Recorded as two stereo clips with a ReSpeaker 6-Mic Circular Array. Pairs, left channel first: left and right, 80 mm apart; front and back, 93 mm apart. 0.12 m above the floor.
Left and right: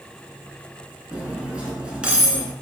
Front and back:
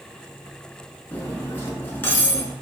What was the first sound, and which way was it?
Cutlery clinking, 30° right.